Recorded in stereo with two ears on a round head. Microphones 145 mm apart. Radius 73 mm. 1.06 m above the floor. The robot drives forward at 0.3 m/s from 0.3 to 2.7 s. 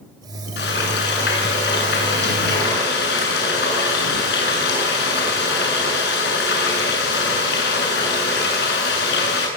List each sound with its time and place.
0.6 s frying: 75° left (ahead or behind), 9.5 m; by 9.5 s 70° left (ahead or behind), 10 m